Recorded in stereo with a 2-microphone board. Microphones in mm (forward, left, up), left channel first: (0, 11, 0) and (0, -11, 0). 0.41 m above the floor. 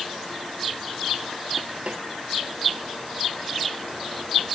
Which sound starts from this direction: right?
A snare drum, at 1.9 s.